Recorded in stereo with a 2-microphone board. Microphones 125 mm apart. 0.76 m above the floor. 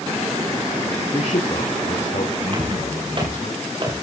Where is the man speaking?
50° left (ahead or behind), 2.5 m; by 3.5 s 70° left (ahead or behind), 4.5 m.